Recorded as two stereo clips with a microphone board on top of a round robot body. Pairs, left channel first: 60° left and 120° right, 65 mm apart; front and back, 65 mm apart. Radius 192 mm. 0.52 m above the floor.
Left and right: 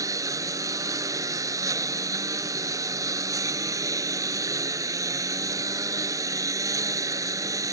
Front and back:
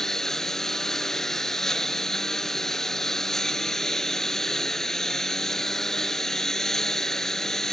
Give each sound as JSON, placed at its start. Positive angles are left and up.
{"t": 0.0, "sound": "a lawn mower", "azimuth_deg": -85}